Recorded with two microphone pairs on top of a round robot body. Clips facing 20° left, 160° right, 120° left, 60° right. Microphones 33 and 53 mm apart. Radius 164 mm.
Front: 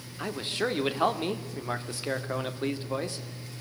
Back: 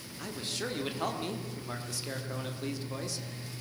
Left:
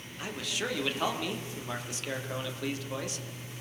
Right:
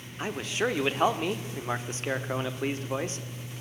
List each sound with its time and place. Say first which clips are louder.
0.2 s a man speaking: front 7 dB, right 6 dB; 30° right, 2 m